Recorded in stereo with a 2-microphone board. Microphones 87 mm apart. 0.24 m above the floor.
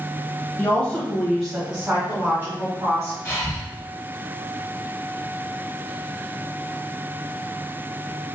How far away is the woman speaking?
About 1.3 m.